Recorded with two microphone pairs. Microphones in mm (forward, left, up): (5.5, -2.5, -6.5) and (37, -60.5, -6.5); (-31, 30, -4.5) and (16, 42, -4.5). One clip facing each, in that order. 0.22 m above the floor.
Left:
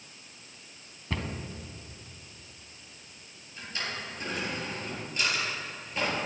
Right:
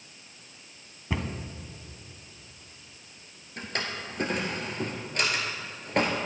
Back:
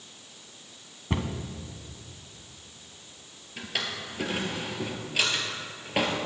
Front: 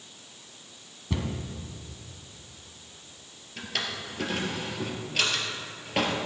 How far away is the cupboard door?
About 1.0 m.